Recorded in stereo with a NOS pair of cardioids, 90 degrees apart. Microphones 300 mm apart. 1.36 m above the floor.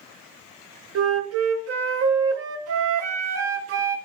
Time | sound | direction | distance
0.9 | a flute | 55° right | 0.6 m